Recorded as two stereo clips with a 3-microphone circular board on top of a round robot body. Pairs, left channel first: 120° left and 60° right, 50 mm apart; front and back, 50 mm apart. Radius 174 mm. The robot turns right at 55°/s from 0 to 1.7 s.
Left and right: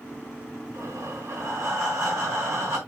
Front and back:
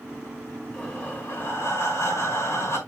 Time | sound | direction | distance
0.7 | breathing | 85° right | 4.5 m